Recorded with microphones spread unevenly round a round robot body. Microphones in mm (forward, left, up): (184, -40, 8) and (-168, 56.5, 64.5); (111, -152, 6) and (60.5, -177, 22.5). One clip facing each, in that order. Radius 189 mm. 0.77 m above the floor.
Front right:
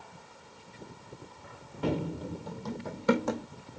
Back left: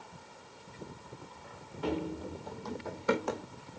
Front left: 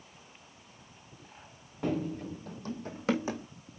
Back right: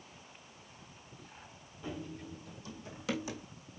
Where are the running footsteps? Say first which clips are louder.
Front right 2 dB, front left 10 dB; straight ahead, 1.3 m; by 3.5 s 30° right, 3 m.